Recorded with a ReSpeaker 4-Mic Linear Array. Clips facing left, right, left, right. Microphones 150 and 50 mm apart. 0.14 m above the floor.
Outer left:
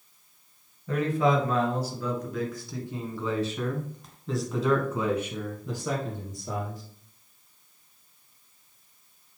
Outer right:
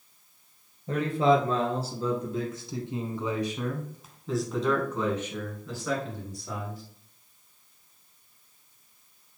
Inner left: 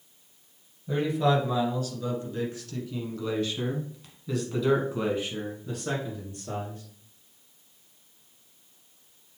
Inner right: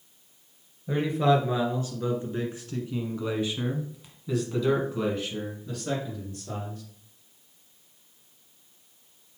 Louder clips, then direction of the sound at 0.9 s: Outer right 1 dB, inner right 1 dB; 30° right (ahead or behind).